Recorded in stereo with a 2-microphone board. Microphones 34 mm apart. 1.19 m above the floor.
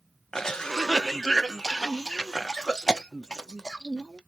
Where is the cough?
15° left (ahead or behind), 0.5 m.